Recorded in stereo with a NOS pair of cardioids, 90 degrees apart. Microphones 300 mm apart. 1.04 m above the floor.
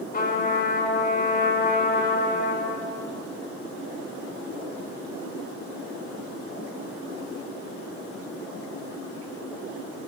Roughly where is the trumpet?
Ahead left.